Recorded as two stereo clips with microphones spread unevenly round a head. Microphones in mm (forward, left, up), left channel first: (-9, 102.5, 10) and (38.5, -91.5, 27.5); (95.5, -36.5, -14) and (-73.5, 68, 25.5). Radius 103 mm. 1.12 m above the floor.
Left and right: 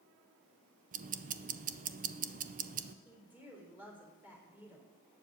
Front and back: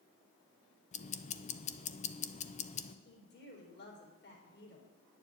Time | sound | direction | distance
0.9 | ticking | 40° right | 0.6 m
3.0 | a woman speaking | 5° left | 3.5 m